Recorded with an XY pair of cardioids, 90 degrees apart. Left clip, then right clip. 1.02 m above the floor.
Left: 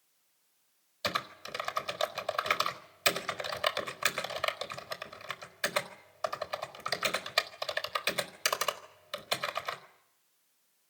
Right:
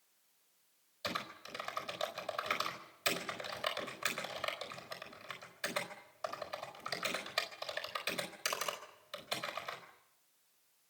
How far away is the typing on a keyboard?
About 4 m.